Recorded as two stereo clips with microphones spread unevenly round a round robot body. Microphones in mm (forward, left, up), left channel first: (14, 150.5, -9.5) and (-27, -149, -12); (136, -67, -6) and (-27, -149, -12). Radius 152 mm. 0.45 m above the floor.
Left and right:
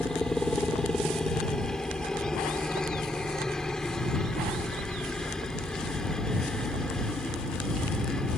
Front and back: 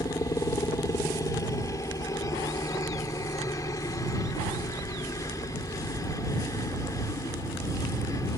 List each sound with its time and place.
0.0 s a helicopter: straight ahead